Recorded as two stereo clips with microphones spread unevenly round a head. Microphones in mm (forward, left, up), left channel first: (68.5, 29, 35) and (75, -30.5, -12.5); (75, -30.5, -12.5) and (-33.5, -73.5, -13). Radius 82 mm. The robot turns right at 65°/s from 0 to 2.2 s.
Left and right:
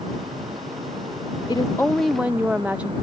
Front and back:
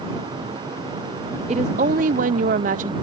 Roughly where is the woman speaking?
Behind left.